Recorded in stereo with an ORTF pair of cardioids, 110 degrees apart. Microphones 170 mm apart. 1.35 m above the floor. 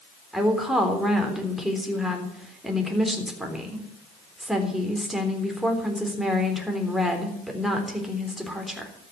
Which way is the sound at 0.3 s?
Straight ahead.